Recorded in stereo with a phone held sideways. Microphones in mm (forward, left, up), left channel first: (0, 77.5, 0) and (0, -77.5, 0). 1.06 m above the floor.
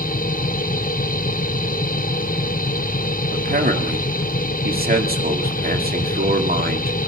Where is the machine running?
65° left (ahead or behind), 0.8 m.